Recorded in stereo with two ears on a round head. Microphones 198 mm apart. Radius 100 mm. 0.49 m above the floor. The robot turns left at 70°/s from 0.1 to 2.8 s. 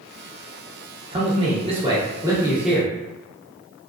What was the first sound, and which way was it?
A man speaking, 25° right (ahead or behind).